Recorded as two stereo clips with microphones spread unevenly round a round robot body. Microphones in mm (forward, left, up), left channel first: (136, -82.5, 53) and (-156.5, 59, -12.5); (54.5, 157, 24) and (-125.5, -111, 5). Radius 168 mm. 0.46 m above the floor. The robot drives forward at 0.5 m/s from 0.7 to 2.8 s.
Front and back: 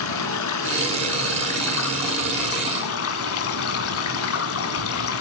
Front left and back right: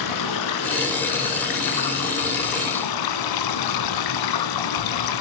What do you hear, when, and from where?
0.0 s running water: 20° left, 3.5 m; by 5.2 s 25° left, 2.5 m